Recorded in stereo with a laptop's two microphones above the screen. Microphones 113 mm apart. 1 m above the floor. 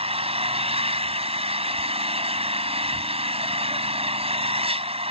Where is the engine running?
60° right (ahead or behind).